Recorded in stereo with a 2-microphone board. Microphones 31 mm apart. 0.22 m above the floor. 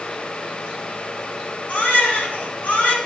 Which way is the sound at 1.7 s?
65° left (ahead or behind).